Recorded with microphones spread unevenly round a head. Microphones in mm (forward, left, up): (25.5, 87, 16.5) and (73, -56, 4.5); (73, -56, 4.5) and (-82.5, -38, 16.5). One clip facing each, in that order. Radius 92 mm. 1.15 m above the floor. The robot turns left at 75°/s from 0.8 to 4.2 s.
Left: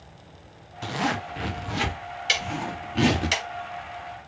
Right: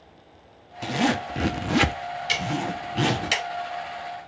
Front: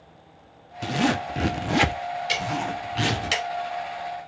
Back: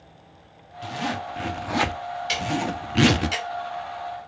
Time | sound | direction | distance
0.8 | a zipper | straight ahead | 0.7 m
2.3 | ticking | 85° left | 2.5 m